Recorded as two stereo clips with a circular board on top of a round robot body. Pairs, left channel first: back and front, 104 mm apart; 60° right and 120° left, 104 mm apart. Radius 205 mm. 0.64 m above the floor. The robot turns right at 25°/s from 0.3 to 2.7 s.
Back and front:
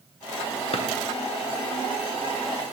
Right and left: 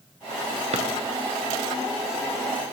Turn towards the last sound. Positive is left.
turn(degrees=-165)